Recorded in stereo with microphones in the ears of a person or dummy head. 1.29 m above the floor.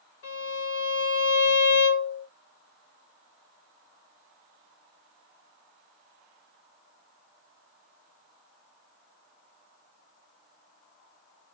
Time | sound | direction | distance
0.2 | a violin | 65° left (ahead or behind) | 1.1 m